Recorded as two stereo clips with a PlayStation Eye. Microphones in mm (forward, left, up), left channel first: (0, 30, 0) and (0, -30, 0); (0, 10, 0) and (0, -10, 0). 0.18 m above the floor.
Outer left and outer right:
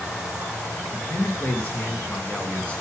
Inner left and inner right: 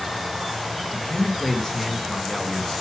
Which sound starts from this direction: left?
A man speaking, at 0.9 s.